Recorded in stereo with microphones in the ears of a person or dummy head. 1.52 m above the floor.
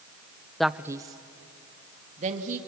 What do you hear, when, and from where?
0.6 s a man speaking: 5° left (ahead or behind), 0.6 m; by 2.6 s 40° right (ahead or behind), 2.5 m